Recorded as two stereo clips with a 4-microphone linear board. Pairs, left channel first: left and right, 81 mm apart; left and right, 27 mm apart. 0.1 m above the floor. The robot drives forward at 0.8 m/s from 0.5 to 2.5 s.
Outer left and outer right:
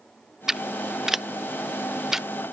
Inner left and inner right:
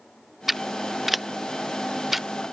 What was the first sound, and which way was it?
Scissors, 5° right (ahead or behind).